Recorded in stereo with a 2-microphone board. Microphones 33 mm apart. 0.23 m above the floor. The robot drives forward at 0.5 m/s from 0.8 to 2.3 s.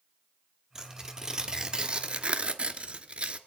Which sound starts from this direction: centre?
Tearing paper, at 0.8 s.